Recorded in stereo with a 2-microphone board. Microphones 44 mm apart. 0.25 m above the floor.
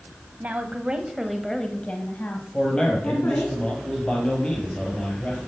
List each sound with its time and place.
0.4 s a woman speaking: 40° right (ahead or behind), 1.6 m; by 3.5 s 65° left (ahead or behind), 3 m
2.5 s a man speaking: 20° left (ahead or behind), 5 m